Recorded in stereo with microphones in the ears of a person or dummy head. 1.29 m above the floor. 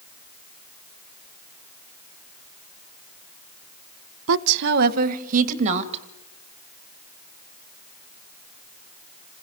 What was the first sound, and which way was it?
A woman speaking, 75° right (ahead or behind).